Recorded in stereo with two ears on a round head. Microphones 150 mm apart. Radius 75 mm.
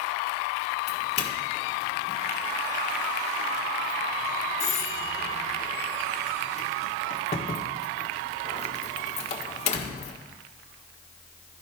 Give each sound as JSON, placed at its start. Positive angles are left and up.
{"t": 0.9, "sound": "a doorbell", "side_deg": 40, "distance_m": 1.4}